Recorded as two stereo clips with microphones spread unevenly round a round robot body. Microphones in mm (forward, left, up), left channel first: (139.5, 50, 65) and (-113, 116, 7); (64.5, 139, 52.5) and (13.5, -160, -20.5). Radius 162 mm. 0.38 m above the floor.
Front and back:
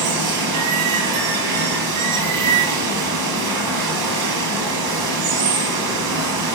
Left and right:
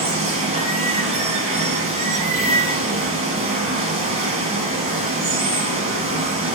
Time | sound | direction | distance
0.0 | running water | 175° right | 0.7 m